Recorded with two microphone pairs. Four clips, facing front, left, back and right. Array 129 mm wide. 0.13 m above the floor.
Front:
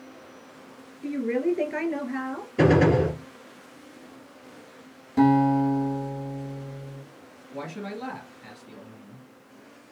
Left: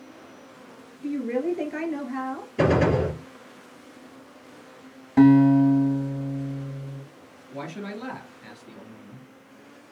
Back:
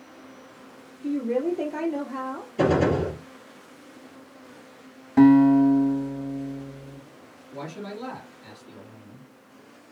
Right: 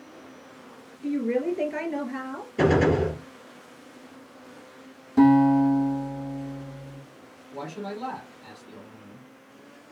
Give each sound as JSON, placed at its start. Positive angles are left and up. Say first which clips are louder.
{"t": 1.0, "sound": "a woman speaking", "louder": "right 1 dB, even", "azimuth_deg": -10, "distance_m": 2.5}
{"t": 2.6, "sound": "a gunshot", "louder": "even, front 2 dB", "azimuth_deg": 0, "distance_m": 3.0}
{"t": 5.2, "sound": "a guitar", "louder": "left 2 dB, back 5 dB", "azimuth_deg": 125, "distance_m": 1.5}
{"t": 7.5, "sound": "a man speaking", "louder": "even, front 1 dB", "azimuth_deg": 75, "distance_m": 2.5}